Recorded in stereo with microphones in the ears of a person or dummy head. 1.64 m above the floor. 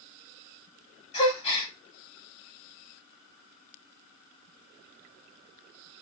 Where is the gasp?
25° left (ahead or behind), 1.7 m.